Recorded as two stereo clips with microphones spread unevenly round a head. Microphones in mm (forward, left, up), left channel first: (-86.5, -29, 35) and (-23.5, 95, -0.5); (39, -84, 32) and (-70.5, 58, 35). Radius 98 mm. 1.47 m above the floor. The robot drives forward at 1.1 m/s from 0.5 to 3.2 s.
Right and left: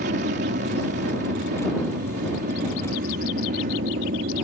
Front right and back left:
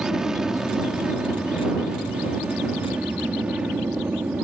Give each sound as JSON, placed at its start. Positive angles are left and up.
{"t": 0.0, "sound": "an aircraft", "azimuth_deg": 40}